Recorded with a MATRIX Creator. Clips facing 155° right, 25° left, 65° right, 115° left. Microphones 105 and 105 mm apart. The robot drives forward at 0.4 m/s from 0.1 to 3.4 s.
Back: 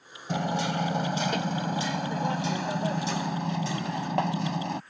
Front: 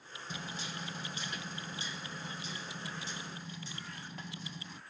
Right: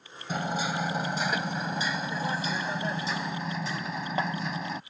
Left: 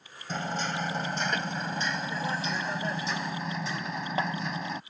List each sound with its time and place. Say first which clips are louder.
0.3 s hammering: back 17 dB, right 2 dB; 150° right; by 4.8 s 155° right